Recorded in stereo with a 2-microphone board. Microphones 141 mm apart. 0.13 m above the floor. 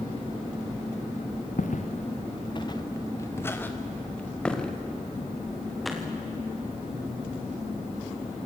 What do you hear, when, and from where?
1.6 s footsteps: 70° left (ahead or behind), 1.1 m; by 6.1 s centre (ahead or behind), 4 m